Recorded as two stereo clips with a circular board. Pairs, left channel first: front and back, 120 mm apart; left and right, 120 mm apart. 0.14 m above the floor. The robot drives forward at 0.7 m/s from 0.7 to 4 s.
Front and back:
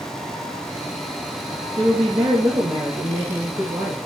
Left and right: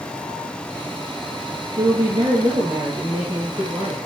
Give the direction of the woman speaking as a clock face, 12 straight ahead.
4 o'clock.